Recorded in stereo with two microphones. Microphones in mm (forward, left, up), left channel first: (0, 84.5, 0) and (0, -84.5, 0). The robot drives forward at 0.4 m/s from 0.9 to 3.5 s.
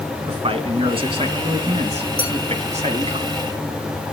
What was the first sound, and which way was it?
A man speaking, 35° right (ahead or behind).